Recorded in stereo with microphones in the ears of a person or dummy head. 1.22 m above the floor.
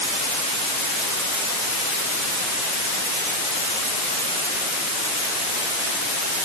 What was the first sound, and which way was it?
Only background noise.